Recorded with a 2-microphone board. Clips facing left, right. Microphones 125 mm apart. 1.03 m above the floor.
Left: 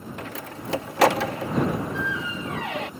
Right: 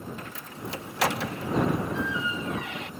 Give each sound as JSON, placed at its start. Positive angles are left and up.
{"t": 0.2, "sound": "a door slam", "side_deg": 80}